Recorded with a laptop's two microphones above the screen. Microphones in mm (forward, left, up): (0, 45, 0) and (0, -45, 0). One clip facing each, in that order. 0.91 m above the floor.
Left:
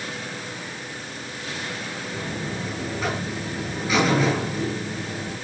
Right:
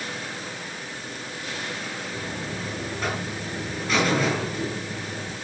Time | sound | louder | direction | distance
2.1 | a buzzer | left 4 dB | 5° left (ahead or behind) | 6 m